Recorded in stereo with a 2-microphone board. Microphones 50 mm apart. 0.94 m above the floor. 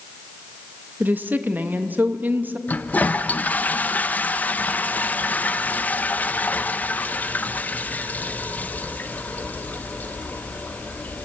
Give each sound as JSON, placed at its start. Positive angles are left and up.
{"t": 1.0, "sound": "a woman speaking", "side_deg": -40, "distance_m": 1.1}
{"t": 2.7, "sound": "a toilet flushing", "side_deg": 30, "distance_m": 0.6}